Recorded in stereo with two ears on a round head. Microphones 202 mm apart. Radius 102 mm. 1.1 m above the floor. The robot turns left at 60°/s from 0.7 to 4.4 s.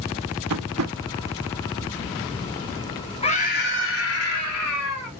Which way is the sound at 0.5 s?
85° right.